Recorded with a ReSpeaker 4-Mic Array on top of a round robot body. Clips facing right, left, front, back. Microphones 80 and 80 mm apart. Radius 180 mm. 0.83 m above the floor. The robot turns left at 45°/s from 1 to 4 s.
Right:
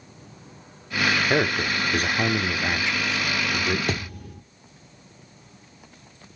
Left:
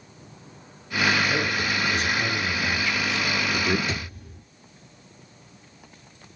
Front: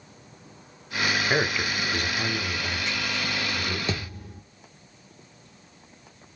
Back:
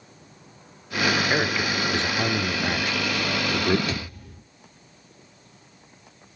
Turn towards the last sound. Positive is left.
turn(degrees=-70)